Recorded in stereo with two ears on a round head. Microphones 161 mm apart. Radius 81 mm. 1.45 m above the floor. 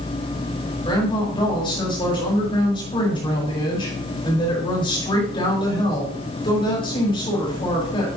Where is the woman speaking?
30° left (ahead or behind), 5 m.